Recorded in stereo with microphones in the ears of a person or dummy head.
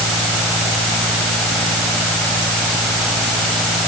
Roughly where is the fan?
Centre.